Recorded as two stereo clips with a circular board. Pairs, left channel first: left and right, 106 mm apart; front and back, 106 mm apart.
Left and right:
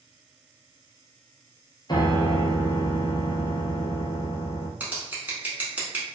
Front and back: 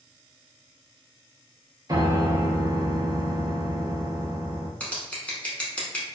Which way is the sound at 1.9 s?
130° left.